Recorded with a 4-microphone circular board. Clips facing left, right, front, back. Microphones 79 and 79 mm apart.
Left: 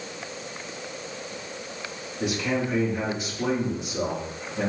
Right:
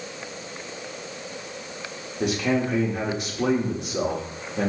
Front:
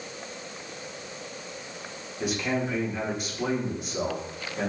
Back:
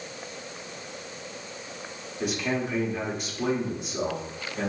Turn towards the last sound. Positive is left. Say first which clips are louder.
# right 3 dB, even
turn(degrees=-90)